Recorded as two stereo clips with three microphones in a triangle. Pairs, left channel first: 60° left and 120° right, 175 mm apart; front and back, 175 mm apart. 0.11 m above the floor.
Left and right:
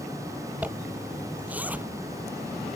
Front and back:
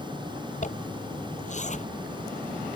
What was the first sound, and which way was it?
A zipper, 40° right.